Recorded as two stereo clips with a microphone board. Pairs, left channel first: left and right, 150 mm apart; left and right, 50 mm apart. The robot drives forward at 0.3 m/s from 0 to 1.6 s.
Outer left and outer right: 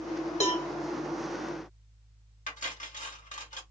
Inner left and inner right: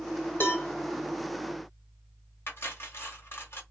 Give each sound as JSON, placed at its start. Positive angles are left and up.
{"t": 0.4, "sound": "a cowbell", "side_deg": 50, "distance_m": 1.7}
{"t": 2.5, "sound": "cutlery clinking", "side_deg": 55, "distance_m": 1.0}